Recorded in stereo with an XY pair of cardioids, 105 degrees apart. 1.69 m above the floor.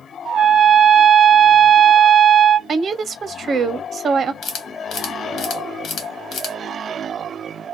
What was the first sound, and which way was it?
A trumpet, 65° right.